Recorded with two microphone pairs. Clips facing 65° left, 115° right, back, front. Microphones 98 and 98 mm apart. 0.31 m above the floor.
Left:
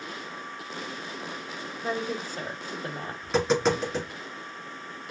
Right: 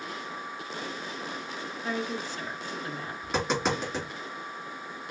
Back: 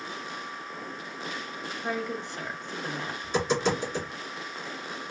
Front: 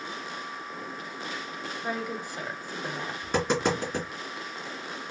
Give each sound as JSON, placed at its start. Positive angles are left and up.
{"t": 1.8, "sound": "a woman speaking", "azimuth_deg": 80, "distance_m": 1.2}
{"t": 3.2, "sound": "tapping", "azimuth_deg": -25, "distance_m": 2.5}